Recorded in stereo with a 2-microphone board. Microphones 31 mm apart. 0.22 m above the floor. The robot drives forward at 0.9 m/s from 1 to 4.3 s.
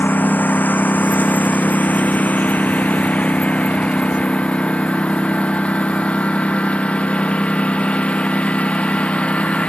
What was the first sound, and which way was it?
A lawn mower, 75° left (ahead or behind).